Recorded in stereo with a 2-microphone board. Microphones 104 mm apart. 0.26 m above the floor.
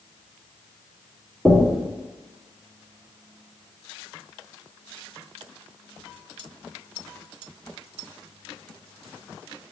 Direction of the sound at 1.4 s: 5° right (ahead or behind).